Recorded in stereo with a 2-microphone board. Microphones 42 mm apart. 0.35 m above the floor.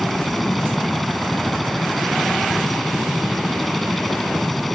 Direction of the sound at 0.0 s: 5° left (ahead or behind).